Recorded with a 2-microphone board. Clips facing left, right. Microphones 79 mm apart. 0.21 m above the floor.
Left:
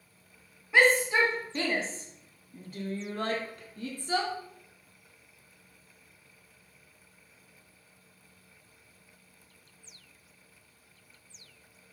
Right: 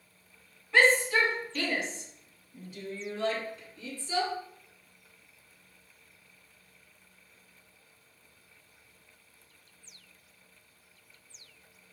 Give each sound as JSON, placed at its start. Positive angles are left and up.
{"t": 0.7, "sound": "a shout", "side_deg": 10, "distance_m": 1.9}